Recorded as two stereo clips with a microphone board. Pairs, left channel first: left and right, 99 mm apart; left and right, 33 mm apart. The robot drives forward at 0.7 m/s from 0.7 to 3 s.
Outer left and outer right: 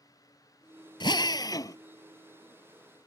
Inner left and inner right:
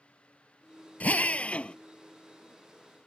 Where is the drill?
50° left (ahead or behind); by 1.8 s 35° left (ahead or behind).